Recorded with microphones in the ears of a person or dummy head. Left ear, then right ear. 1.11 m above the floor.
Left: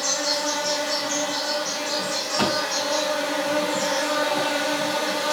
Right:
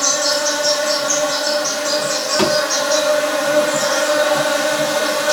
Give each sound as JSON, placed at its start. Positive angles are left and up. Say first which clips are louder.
{"t": 0.0, "sound": "an insect", "louder": "right 7 dB", "side_deg": -60, "distance_m": 2.5}
{"t": 2.4, "sound": "a thud", "louder": "right 6 dB", "side_deg": -15, "distance_m": 4.0}